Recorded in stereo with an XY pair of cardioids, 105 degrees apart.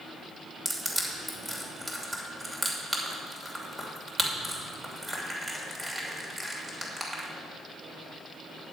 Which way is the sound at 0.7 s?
20° right.